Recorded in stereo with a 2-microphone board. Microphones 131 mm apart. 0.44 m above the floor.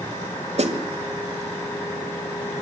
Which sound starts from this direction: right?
A snare drum, at 0.6 s.